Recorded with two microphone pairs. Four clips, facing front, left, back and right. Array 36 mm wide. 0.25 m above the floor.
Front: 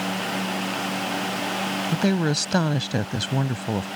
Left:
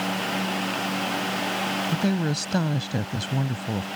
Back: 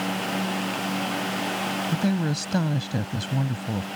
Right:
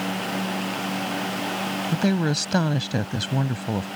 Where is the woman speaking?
40° right.